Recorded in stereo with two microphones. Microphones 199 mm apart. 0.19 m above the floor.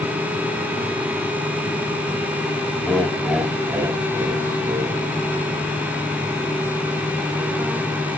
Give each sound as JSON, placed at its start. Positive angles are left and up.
{"t": 2.8, "sound": "laughter", "side_deg": 10, "distance_m": 1.9}